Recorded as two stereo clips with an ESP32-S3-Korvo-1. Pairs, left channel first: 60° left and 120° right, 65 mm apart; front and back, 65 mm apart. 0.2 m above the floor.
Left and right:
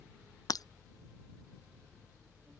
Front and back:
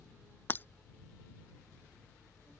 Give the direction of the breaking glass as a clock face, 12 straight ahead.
10 o'clock.